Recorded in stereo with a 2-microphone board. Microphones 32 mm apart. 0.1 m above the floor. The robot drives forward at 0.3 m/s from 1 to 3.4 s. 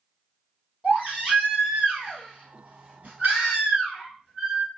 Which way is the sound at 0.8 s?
50° right (ahead or behind).